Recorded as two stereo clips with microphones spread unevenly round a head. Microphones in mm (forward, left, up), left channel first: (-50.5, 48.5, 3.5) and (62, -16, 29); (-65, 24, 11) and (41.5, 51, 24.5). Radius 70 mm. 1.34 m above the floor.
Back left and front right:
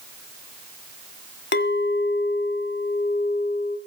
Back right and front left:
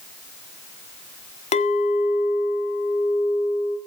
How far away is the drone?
No drone in this recording.